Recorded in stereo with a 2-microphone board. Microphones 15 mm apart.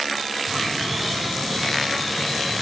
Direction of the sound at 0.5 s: 15° right (ahead or behind).